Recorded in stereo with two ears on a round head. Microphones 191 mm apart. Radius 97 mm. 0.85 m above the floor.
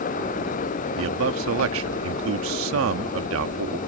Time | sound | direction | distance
1.0 | a man speaking | 70° right (ahead or behind) | ?